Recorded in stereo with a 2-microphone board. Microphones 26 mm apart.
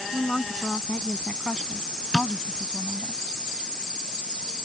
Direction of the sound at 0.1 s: 30° left (ahead or behind).